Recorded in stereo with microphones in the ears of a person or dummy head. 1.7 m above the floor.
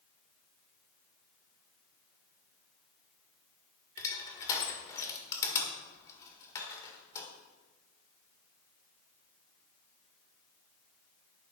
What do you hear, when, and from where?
4.0 s crushing: 20° left (ahead or behind), 1.8 m